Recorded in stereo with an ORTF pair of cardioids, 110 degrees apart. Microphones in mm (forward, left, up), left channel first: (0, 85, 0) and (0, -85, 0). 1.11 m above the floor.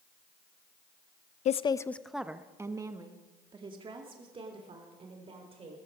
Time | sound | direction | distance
1.4 | a woman speaking | 45° left | 0.5 m